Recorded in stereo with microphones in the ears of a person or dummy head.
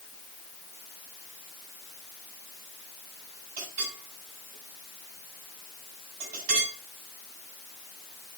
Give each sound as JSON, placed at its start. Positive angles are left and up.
{"t": 3.6, "sound": "a clink", "side_deg": -50, "distance_m": 7.0}